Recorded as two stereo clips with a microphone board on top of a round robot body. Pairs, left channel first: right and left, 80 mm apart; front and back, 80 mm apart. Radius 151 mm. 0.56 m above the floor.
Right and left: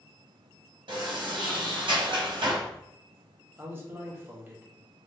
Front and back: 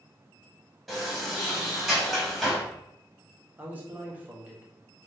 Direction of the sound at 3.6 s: 130° left.